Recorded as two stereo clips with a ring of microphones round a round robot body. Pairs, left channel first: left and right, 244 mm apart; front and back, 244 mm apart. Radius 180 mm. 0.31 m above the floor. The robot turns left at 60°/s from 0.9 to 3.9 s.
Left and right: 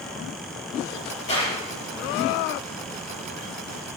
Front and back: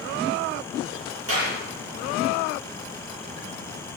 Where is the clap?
150° left, 6.5 m; by 1.6 s 135° left, 6.5 m.